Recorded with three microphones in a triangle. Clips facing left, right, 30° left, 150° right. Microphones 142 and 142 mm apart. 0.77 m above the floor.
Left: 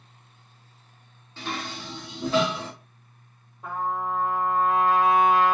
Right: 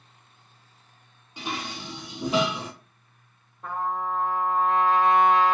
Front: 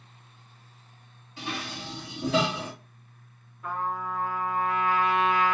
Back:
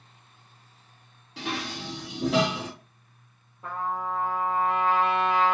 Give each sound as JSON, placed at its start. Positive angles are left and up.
{"t": 1.4, "sound": "dishes clattering", "azimuth_deg": -170, "distance_m": 0.8}
{"t": 3.6, "sound": "a trumpet", "azimuth_deg": 170, "distance_m": 1.1}